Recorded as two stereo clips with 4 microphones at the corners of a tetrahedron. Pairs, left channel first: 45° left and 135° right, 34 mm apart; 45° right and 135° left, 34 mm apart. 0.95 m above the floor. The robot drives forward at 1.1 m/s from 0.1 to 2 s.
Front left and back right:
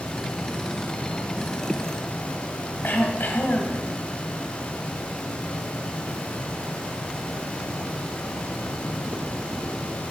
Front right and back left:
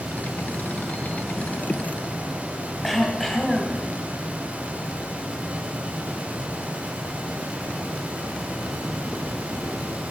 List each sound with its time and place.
2.8 s throat clearing: 40° left, 1.5 m